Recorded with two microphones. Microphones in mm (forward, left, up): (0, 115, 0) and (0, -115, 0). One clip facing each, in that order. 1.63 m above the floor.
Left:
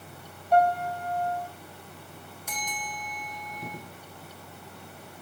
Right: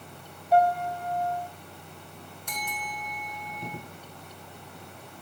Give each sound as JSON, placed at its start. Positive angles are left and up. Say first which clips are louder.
{"t": 0.5, "sound": "a piano", "louder": "even", "side_deg": -5, "distance_m": 3.0}
{"t": 2.5, "sound": "a bell", "louder": "right 1 dB", "side_deg": 5, "distance_m": 4.5}